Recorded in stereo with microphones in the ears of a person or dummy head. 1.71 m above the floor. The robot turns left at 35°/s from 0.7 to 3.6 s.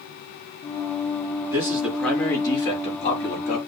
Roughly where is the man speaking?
Behind.